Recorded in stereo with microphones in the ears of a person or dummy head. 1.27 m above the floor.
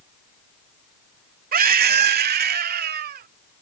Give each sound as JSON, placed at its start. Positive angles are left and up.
{"t": 1.5, "sound": "a scream", "side_deg": -50}